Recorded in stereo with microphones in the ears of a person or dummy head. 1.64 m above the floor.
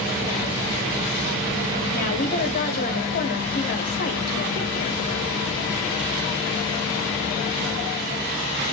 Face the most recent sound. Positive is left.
turn(degrees=45)  # may be behind; listen again after turning